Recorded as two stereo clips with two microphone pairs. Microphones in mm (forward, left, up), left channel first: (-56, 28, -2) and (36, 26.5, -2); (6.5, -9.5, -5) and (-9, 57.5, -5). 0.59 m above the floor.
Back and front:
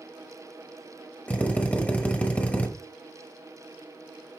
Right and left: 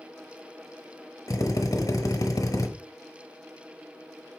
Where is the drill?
110° right, 1.1 m.